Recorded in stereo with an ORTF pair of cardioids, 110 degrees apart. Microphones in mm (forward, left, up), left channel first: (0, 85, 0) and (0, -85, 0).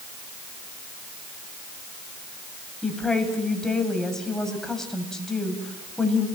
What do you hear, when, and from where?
2.8 s a woman speaking: 5° left, 7 m